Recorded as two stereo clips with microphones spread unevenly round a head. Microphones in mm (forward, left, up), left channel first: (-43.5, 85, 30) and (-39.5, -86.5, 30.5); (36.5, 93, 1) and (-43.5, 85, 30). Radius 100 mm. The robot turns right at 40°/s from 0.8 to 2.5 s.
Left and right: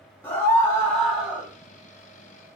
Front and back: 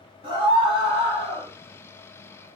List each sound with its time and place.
0.2 s a scream: 170° left, 1.4 m; by 1.5 s 160° right, 1.4 m